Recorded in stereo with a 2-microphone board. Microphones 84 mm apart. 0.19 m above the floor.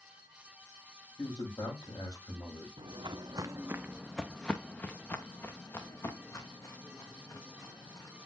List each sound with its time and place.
1.2 s a man speaking: 50° left (ahead or behind), 7 m
2.8 s footsteps: 75° right (ahead or behind), 0.9 m; by 8.3 s 45° left (ahead or behind), 3.5 m